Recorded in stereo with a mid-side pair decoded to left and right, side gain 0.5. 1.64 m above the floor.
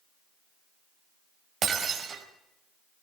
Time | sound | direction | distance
1.6 | breaking glass | 45° right | 4 m